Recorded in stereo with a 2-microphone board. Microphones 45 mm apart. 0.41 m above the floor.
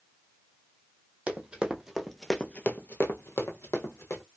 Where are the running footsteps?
25° right (ahead or behind), 1.0 m; by 4.2 s 75° left (ahead or behind), 1.3 m.